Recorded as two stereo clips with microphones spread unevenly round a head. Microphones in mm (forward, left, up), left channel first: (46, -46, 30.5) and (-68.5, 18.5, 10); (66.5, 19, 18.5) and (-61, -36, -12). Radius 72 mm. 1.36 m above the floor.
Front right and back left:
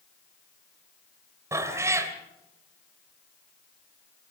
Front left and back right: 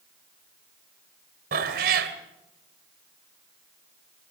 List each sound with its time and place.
1.5 s a cat meowing: 135° right, 2 m